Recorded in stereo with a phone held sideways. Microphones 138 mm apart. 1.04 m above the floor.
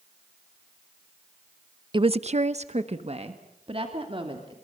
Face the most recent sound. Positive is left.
turn(degrees=-40)  # may be behind; listen again after turning